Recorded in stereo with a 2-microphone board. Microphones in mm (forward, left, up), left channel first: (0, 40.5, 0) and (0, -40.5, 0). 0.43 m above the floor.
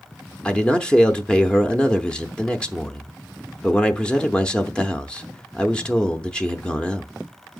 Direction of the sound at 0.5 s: 10° left (ahead or behind).